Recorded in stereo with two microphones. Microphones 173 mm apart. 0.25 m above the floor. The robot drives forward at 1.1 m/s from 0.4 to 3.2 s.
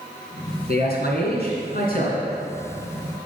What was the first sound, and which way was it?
A man speaking, 65° left (ahead or behind).